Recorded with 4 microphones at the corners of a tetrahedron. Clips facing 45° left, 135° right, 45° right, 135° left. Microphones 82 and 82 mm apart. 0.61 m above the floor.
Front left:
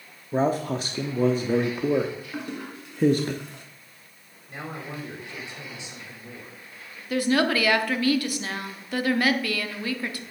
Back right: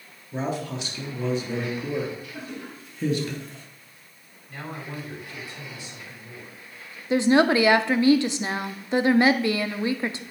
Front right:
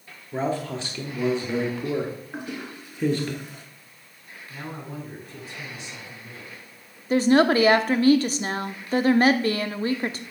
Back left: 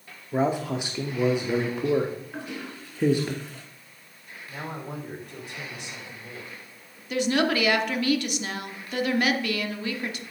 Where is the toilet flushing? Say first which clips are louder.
Front left 3 dB, front right 2 dB; 30° left, 2 m.